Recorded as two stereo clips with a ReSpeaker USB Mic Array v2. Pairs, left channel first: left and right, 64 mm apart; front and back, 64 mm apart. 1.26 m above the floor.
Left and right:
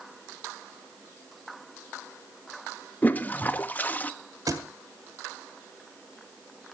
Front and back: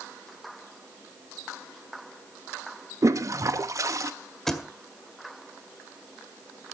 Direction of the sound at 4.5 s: 85° right.